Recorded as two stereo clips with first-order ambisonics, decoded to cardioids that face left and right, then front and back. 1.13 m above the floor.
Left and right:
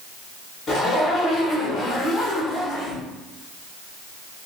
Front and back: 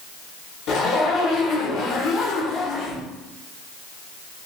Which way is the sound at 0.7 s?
30° left.